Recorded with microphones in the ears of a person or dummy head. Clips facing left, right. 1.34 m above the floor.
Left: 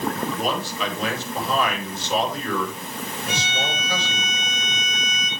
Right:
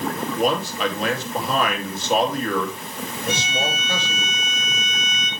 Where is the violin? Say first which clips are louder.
Right 4 dB; 85° right, 5 m.